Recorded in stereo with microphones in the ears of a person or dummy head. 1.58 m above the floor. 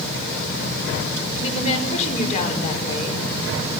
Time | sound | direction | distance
1.3 | a woman speaking | 40° left (ahead or behind) | 5.5 m